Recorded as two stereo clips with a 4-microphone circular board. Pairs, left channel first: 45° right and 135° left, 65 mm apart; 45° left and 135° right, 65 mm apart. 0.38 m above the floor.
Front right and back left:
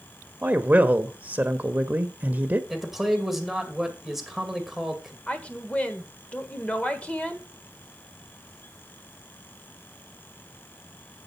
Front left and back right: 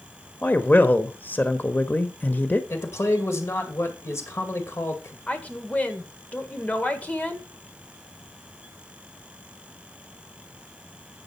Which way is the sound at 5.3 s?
5° left.